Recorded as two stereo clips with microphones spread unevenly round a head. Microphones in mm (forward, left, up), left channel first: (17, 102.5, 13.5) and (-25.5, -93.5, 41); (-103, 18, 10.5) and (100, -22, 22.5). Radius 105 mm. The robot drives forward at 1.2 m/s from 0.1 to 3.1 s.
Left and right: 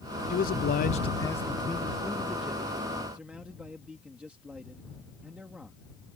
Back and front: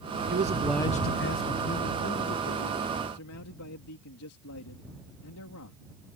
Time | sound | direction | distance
0.3 | a man speaking | 35° left | ?